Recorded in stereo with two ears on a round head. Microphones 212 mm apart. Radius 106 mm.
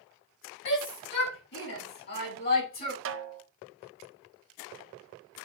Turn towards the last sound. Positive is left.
turn(degrees=-55)  # may be behind; listen again after turning